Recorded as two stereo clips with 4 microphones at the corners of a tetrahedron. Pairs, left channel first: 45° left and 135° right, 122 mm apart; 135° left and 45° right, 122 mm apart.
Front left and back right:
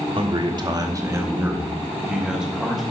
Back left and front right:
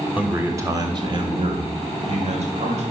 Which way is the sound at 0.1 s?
120° right.